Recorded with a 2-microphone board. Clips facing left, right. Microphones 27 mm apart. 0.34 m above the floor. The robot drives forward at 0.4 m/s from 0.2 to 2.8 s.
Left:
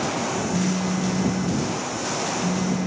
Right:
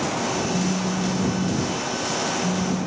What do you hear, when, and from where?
0.5 s a phone buzzing: 70° left (ahead or behind)